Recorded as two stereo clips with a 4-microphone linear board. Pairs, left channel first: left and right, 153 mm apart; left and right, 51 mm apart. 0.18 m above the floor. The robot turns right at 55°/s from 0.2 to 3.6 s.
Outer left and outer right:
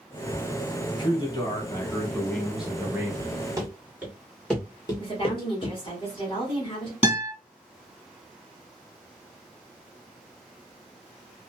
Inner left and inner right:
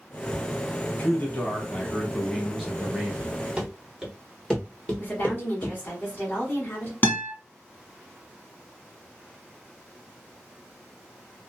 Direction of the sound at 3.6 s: 25° right (ahead or behind).